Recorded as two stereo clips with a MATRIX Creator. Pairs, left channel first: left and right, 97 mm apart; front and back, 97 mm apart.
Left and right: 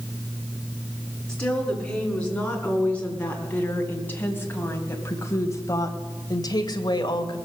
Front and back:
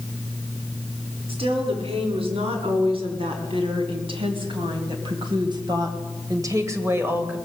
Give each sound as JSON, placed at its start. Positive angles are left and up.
{"t": 1.3, "sound": "a woman speaking", "azimuth_deg": 170, "distance_m": 4.5}